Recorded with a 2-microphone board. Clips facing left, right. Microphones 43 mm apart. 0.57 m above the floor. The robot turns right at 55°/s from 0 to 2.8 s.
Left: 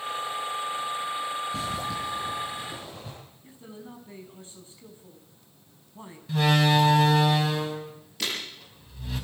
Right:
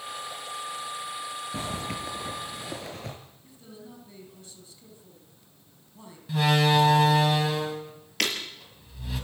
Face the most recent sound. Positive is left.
turn(degrees=-70)  # may be behind; listen again after turning